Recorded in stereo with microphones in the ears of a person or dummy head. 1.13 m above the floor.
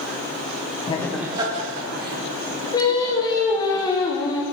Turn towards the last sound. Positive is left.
turn(degrees=20)  # may be behind; listen again after turning